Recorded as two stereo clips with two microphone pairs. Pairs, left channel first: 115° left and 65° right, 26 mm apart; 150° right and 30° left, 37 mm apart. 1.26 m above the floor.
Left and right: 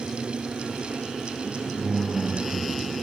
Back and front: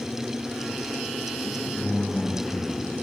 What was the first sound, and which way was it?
A man speaking, 105° right.